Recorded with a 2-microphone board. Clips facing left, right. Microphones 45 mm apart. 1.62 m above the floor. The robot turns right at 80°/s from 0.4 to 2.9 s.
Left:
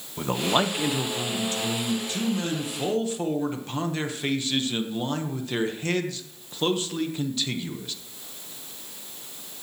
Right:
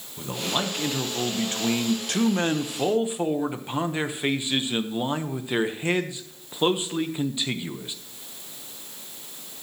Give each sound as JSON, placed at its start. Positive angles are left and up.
{"t": 0.2, "sound": "a man speaking", "azimuth_deg": 140, "distance_m": 1.0}